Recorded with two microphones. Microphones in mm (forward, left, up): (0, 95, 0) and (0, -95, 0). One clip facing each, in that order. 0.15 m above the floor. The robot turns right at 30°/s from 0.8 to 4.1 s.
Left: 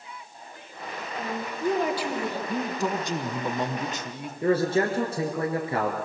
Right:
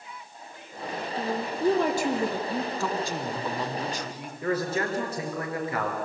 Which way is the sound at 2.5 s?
15° left (ahead or behind).